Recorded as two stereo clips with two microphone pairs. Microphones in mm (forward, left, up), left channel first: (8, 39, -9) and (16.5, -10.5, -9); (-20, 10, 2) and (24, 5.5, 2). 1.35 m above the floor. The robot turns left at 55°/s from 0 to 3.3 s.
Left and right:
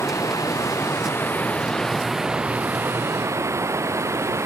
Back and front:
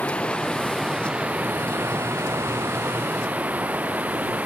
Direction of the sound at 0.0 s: 125° left.